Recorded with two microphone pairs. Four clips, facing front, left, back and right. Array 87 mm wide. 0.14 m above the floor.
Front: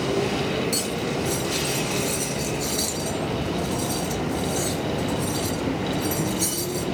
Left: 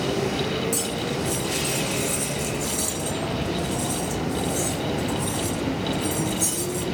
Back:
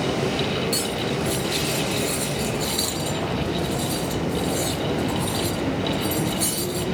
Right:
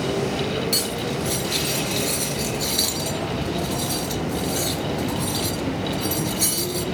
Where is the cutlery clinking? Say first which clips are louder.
Right 1 dB, back 1 dB; 90° right, 1.3 m.